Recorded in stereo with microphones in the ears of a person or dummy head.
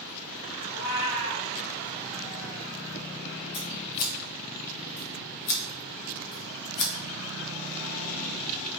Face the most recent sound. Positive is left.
turn(degrees=60)  # may be behind; listen again after turning